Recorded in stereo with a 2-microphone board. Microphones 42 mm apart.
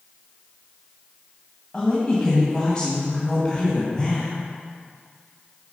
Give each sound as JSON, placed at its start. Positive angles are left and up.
{"t": 1.7, "sound": "a woman speaking", "side_deg": 20, "distance_m": 1.9}